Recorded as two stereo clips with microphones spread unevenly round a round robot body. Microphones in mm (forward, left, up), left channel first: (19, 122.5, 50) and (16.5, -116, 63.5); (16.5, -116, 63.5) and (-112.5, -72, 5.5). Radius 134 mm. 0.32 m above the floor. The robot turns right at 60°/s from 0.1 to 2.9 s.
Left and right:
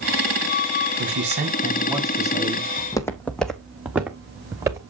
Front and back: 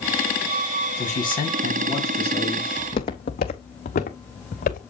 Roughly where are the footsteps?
Ahead.